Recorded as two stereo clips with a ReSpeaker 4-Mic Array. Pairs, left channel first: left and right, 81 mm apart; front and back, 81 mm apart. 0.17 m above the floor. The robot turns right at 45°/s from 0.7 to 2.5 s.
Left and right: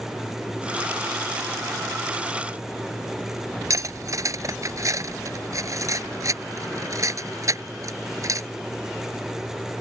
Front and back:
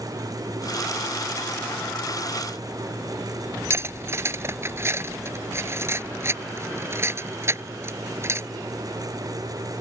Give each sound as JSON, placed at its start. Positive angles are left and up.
{"t": 3.7, "sound": "cutlery clinking", "azimuth_deg": -130}